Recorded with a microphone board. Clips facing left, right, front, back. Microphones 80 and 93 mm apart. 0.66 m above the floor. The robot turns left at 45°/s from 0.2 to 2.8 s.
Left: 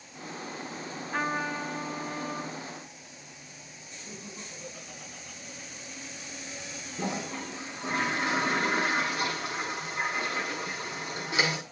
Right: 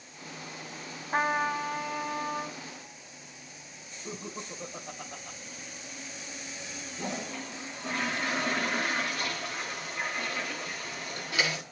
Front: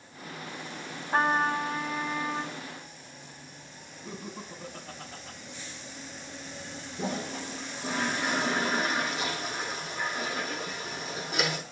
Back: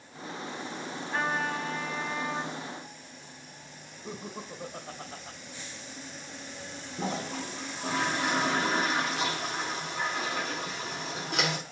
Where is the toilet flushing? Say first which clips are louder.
Left 3 dB, even; 155° left, 6.5 m.